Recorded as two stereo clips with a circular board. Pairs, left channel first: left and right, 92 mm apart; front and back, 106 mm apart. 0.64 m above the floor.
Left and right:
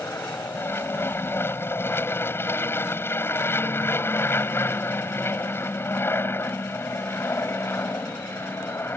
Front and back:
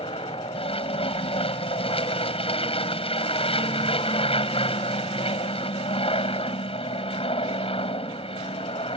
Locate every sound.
0.0 s an aircraft: 25° left